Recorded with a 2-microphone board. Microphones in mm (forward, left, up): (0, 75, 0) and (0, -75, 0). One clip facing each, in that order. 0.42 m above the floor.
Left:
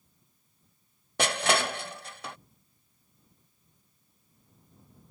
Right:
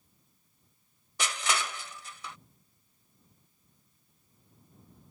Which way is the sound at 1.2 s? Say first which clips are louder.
Left 7 dB; 65° left (ahead or behind).